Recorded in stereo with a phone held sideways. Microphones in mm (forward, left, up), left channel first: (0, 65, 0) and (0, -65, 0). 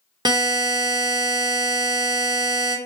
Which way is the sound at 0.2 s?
35° right (ahead or behind).